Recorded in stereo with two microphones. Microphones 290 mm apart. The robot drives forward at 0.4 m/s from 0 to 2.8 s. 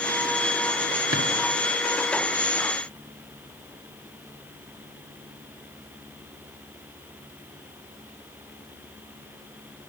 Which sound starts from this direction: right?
A drawer, at 1.1 s.